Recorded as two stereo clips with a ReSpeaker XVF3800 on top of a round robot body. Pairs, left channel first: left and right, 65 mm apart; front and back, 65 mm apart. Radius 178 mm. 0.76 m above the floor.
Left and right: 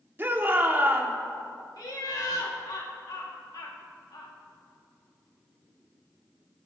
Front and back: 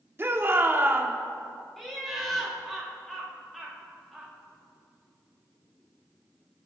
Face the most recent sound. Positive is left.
turn(degrees=85)